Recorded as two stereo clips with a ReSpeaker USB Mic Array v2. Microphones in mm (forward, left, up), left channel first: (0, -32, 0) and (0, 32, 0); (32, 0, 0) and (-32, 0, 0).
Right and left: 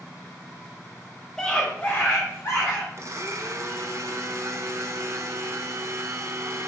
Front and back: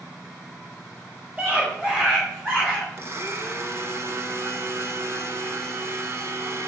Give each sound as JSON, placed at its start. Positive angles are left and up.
{"t": 1.4, "sound": "a scream", "azimuth_deg": -160, "distance_m": 1.5}
{"t": 3.0, "sound": "a blender", "azimuth_deg": 130, "distance_m": 0.6}